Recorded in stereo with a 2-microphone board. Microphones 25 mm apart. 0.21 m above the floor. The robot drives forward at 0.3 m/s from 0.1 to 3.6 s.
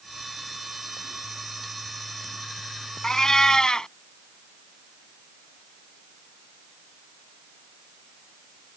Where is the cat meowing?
30° left (ahead or behind).